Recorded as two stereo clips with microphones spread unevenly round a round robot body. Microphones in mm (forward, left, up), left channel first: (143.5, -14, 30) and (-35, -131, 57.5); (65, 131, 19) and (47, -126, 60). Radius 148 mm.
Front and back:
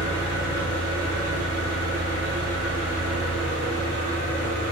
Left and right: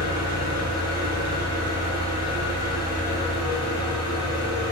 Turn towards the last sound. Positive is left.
turn(degrees=20)